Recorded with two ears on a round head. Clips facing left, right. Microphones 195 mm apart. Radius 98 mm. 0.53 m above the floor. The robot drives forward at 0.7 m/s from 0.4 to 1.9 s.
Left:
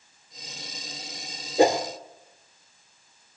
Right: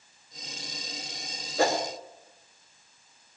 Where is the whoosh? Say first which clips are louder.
Left 6 dB; 15° left (ahead or behind), 1.7 m.